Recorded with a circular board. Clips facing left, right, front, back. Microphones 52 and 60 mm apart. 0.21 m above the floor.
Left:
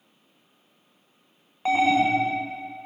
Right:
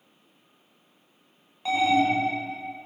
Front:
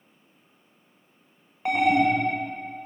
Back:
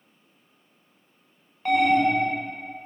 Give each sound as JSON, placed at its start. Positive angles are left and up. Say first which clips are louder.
{"t": 1.6, "sound": "an alarm", "louder": "left 2 dB, back 1 dB", "azimuth_deg": 60, "distance_m": 0.9}